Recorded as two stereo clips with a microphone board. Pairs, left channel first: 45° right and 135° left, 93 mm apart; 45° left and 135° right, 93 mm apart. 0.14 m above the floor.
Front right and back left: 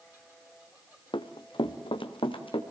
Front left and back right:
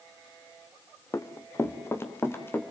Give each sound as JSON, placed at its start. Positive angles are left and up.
{"t": 1.1, "sound": "running footsteps", "azimuth_deg": -15, "distance_m": 1.6}